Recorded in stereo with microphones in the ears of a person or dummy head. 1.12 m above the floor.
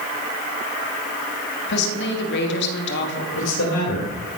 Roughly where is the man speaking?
Left.